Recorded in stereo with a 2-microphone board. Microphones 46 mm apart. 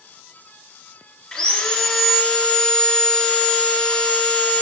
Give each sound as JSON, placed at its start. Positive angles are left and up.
{"t": 1.3, "sound": "sawing", "side_deg": 10, "distance_m": 1.9}